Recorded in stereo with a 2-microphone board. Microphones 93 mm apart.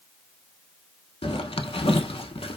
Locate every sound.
1.2 s a zipper: 75° left (ahead or behind), 0.5 m